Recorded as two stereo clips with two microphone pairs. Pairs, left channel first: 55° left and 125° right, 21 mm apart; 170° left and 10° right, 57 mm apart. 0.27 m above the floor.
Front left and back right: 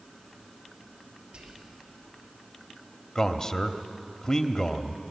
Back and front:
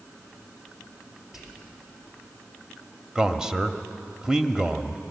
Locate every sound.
1.3 s whispering: 95° right, 5 m
3.1 s a man speaking: 50° left, 0.9 m